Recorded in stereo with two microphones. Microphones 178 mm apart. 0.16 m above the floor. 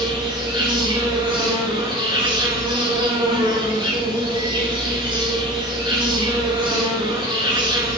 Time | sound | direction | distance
0.0 | an insect | 30° right (ahead or behind) | 4.5 m